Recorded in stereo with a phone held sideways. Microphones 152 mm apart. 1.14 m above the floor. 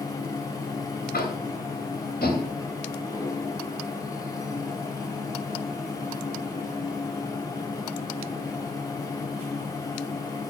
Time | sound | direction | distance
0.0 | a machine running | 20° left (ahead or behind) | 2.5 m
1.1 | tapping | 75° left (ahead or behind) | 3.5 m